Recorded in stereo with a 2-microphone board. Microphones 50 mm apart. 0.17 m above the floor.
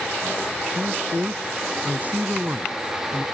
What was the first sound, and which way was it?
A man speaking, 35° right (ahead or behind).